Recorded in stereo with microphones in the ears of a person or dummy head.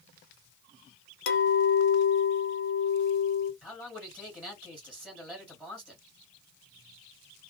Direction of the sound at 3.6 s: Centre (ahead or behind).